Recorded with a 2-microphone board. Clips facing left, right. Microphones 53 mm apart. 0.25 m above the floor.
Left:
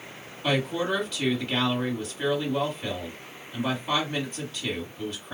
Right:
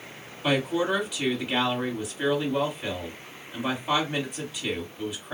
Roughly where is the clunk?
I don't hear a clunk.